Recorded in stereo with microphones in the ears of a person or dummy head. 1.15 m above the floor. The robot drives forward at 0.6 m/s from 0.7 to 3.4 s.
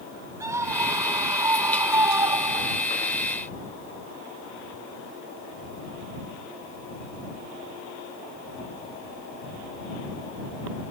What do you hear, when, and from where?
0.4 s a scream: 15° right (ahead or behind); by 2.9 s 20° right (ahead or behind)